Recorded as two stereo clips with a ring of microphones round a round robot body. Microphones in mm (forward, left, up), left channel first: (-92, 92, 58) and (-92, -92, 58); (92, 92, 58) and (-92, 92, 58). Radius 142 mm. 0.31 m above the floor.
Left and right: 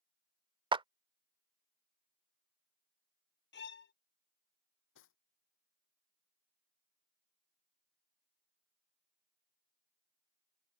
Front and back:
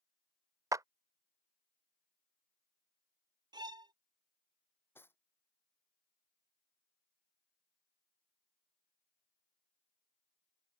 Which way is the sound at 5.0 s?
80° left.